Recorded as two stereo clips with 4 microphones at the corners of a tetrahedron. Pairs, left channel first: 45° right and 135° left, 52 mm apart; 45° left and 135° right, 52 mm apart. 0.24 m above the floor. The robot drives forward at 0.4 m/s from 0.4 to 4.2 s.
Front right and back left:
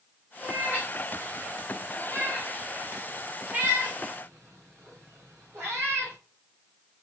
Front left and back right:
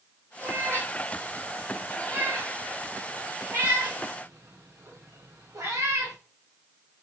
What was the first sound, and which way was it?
A cat meowing, 170° right.